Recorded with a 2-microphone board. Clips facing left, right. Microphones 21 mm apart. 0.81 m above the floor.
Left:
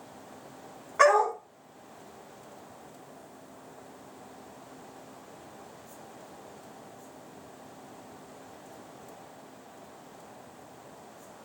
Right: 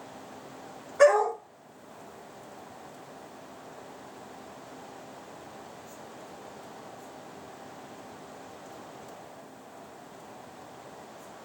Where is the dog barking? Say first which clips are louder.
Right 1 dB; 75° left (ahead or behind), 1.8 m.